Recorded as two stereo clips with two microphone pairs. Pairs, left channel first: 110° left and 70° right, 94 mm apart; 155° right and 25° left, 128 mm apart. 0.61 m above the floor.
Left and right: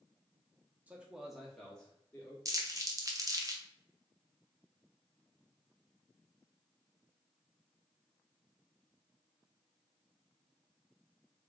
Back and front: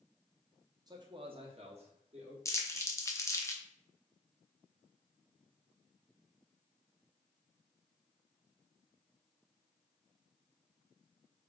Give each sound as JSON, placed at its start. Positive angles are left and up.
{"t": 0.9, "sound": "a man speaking", "azimuth_deg": -5, "distance_m": 0.8}
{"t": 2.5, "sound": "crumpling", "azimuth_deg": -100, "distance_m": 0.7}